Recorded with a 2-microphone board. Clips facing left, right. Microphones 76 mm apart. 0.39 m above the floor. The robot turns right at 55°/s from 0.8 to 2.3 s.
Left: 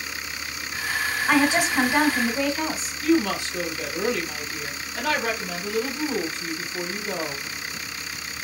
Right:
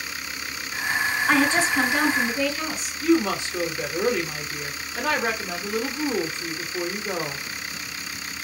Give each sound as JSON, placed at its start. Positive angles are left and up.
{"t": 1.3, "sound": "a woman speaking", "azimuth_deg": 5, "distance_m": 1.1}
{"t": 3.0, "sound": "a woman speaking", "side_deg": -20, "distance_m": 0.8}